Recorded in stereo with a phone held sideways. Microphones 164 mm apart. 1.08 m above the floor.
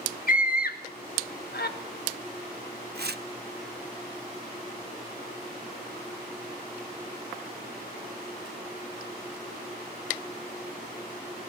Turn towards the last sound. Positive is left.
turn(degrees=-80)